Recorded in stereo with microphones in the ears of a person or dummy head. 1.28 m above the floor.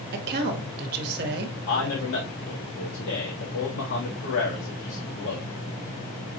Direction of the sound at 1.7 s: 70° left (ahead or behind).